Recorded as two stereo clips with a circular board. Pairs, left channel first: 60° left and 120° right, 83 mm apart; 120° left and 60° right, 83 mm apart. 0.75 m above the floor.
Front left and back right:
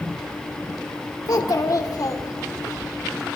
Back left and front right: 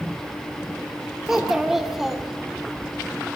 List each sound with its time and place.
1.3 s a child speaking: 25° left, 1.5 m